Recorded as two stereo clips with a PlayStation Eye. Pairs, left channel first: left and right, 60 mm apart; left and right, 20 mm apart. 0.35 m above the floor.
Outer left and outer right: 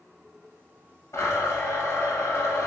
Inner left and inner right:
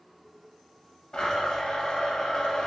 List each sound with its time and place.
1.1 s a blender: 55° left (ahead or behind), 1.2 m